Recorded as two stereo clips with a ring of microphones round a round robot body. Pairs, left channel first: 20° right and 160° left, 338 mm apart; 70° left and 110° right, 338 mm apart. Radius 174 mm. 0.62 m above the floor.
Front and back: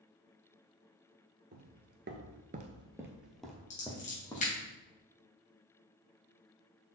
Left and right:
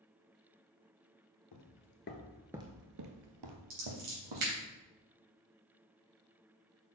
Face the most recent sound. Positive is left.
turn(degrees=-90)